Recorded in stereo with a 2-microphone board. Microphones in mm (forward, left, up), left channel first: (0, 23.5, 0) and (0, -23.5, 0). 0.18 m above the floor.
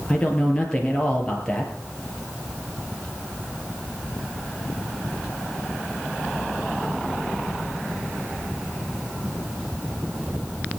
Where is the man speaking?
20° left (ahead or behind), 4 m.